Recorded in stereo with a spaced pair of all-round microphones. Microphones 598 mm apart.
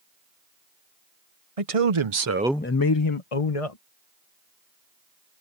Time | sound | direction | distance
1.6 | a man speaking | 70° right (ahead or behind) | ?